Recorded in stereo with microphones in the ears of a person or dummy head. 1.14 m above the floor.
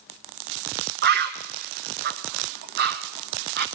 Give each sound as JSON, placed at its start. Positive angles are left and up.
{"t": 1.0, "sound": "a bird", "side_deg": -50, "distance_m": 1.0}